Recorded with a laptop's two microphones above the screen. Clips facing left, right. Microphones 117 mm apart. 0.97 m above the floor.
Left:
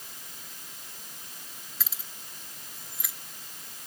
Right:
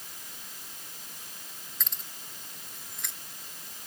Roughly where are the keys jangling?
Centre.